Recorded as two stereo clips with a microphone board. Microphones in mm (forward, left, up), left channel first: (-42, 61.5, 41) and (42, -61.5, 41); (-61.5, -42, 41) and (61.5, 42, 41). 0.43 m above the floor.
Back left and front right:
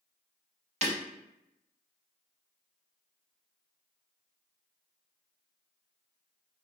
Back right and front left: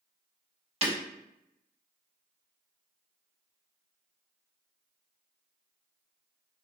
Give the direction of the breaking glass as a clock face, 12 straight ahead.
12 o'clock.